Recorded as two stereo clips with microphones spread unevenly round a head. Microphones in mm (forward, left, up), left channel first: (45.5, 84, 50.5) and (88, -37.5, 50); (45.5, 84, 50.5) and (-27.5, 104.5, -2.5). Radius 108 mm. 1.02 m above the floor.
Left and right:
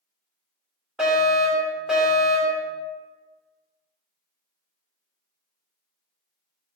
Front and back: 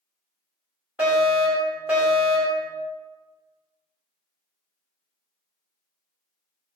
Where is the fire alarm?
155° right, 3 m.